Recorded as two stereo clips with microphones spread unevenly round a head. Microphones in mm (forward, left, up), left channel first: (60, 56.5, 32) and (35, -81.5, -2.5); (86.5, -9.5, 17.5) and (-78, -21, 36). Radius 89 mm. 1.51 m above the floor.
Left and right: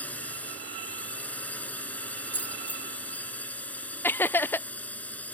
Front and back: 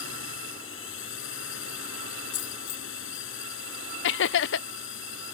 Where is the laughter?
Straight ahead.